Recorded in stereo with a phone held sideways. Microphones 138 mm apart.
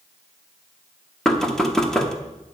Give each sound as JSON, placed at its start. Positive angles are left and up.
{"t": 1.2, "sound": "knocking", "side_deg": 5, "distance_m": 1.0}